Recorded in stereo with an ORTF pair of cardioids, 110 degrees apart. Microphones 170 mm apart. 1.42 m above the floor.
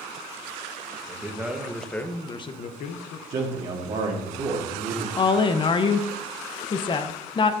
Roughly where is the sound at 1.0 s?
Ahead.